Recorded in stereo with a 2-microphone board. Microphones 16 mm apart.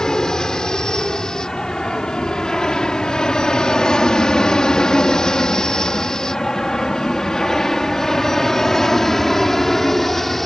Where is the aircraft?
45° left (ahead or behind); by 10.5 s 20° left (ahead or behind).